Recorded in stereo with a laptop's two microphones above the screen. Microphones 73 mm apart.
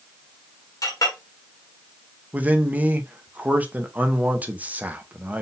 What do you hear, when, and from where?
0.8 s a clink: 50° left (ahead or behind), 1.4 m
2.3 s a man speaking: 20° right (ahead or behind), 0.6 m